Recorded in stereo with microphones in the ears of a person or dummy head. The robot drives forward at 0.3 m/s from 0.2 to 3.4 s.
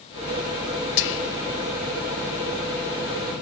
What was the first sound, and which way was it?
Whispering, 55° left (ahead or behind).